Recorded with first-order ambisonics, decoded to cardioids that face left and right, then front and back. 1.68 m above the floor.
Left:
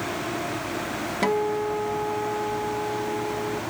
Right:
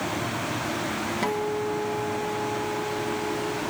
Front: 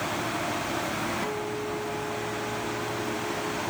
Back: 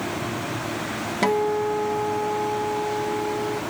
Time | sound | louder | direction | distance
1.2 | a guitar | left 5 dB, back 9 dB | 165° left | 0.6 m